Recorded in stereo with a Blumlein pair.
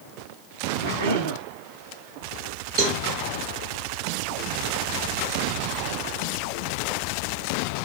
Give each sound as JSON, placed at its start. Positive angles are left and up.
{"t": 0.8, "sound": "a cough", "azimuth_deg": -65, "distance_m": 2.0}
{"t": 2.8, "sound": "a cowbell", "azimuth_deg": -40, "distance_m": 2.5}